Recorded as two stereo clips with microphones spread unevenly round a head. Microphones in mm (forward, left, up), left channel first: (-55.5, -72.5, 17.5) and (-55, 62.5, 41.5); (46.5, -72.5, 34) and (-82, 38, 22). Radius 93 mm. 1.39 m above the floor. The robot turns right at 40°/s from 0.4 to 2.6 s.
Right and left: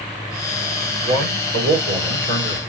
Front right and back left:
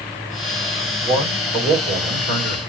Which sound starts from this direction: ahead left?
A man speaking, at 1.0 s.